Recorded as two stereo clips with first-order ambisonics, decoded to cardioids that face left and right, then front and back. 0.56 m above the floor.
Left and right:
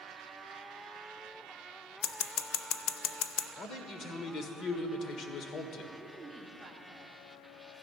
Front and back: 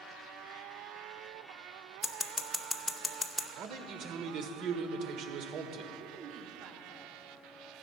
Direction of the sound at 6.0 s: 175° right.